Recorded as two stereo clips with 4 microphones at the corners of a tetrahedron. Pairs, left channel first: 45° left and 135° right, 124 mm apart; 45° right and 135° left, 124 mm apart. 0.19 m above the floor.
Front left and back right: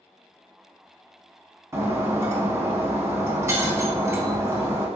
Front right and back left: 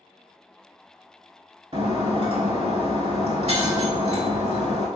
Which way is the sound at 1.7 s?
160° left.